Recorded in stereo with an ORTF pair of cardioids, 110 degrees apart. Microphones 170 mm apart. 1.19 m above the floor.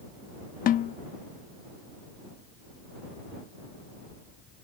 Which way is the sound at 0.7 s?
60° left.